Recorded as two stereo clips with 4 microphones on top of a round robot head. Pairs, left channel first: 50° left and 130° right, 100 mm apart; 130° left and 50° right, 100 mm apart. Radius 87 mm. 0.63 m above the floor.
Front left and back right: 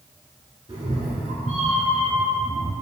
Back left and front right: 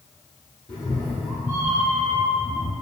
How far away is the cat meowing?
About 0.9 m.